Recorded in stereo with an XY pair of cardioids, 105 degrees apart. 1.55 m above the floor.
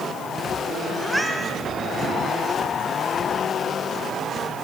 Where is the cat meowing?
5° right, 4.5 m.